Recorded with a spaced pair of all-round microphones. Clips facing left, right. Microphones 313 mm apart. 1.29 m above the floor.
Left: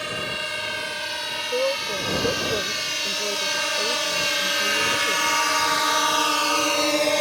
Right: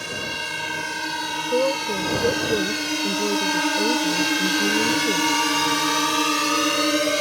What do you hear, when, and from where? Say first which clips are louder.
0.0 s a drone: even; 60° right (ahead or behind); by 7.2 s 15° right (ahead or behind)
1.5 s a woman speaking: right 3 dB; 40° right (ahead or behind)